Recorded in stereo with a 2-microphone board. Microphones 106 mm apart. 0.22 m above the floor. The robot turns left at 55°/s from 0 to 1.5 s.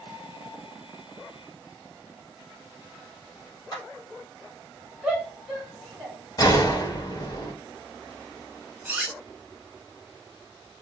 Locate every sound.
3.7 s a clap: 40° left (ahead or behind), 2 m
5.0 s a shout: 5° right (ahead or behind), 1.2 m
6.4 s a gunshot: 40° left (ahead or behind), 0.7 m
8.8 s cutlery clinking: 15° right (ahead or behind), 0.7 m